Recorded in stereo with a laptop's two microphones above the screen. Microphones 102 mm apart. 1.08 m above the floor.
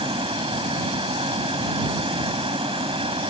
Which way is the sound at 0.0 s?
55° right (ahead or behind).